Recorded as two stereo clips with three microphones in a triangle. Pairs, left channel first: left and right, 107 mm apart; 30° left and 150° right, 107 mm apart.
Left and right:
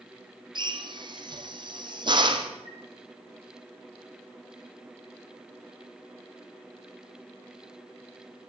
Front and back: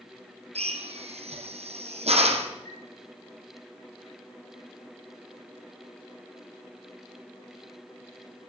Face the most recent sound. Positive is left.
turn(degrees=85)